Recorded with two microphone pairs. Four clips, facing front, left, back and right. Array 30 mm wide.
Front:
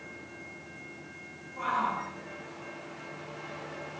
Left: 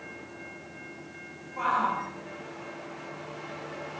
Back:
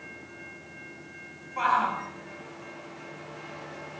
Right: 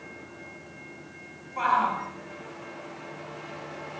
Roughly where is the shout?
Behind right.